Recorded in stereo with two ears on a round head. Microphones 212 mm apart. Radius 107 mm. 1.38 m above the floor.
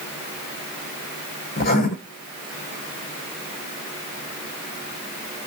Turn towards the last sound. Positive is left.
turn(degrees=40)  # may be behind; listen again after turning